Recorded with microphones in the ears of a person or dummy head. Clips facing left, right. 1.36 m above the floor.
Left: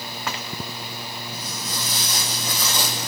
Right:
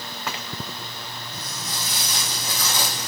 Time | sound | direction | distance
1.3 | footsteps | 65° left (ahead or behind) | 3.5 m